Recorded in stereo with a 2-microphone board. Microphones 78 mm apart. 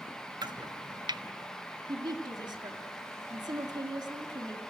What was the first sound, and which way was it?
Chopping, 70° right (ahead or behind).